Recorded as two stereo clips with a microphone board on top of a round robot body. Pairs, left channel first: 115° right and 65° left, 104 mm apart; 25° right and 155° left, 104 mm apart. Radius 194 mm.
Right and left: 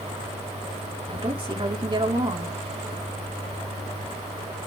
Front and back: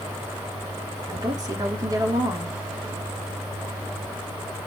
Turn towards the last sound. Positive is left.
turn(degrees=105)